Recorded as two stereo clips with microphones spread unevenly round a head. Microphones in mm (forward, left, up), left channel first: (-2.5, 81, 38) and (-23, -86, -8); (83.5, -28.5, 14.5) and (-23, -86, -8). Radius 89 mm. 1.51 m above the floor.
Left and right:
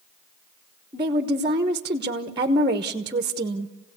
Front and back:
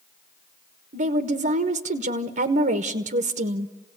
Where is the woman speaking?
165° right, 1.2 m.